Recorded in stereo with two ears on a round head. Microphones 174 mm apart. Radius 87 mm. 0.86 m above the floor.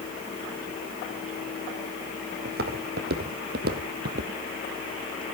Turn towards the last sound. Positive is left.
turn(degrees=-55)  # may be behind; listen again after turning